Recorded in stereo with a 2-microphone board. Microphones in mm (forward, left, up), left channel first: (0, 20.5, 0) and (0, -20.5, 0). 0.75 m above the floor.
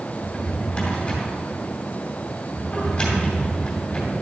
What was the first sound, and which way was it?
A drawer, 25° left (ahead or behind).